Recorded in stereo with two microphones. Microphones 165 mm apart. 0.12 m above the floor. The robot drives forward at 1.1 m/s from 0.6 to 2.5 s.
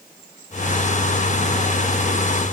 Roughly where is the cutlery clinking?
No cutlery clinking in this recording.